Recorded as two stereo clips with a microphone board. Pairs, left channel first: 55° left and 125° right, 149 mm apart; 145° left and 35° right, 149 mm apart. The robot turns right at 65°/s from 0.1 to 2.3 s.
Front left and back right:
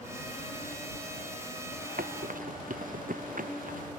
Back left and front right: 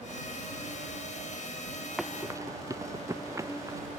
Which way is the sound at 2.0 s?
125° right.